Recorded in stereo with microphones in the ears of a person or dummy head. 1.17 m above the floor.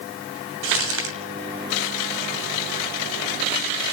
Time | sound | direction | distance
0.6 | crumpling | 80° right | 2.5 m